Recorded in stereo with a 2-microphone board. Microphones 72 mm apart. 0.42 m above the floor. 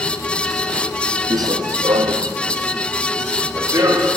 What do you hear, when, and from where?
1.3 s running footsteps: 50° right (ahead or behind), 0.9 m; by 4.1 s 45° right (ahead or behind), 4.5 m